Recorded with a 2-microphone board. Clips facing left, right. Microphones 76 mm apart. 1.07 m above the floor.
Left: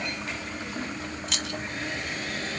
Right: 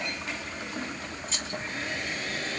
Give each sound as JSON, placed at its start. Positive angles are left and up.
{"t": 1.3, "sound": "keys jangling", "side_deg": 70, "distance_m": 0.6}